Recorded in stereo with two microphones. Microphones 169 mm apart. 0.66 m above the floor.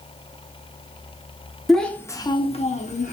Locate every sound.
1.7 s a child speaking: centre (ahead or behind), 0.6 m; by 3.1 s 45° left (ahead or behind), 0.7 m